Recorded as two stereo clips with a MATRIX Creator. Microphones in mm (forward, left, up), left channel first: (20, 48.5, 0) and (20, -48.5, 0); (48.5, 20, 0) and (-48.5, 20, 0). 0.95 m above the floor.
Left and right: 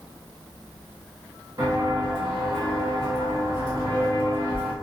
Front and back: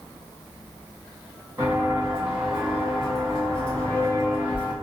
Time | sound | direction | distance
1.6 | footsteps | 115° right | 1.7 m